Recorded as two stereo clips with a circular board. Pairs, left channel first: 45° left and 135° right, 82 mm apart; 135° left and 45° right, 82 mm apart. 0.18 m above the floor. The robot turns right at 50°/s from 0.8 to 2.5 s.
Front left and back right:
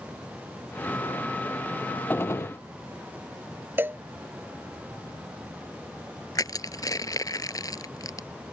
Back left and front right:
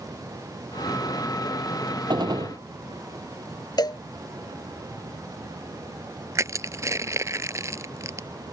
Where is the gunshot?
20° right; by 2.6 s straight ahead.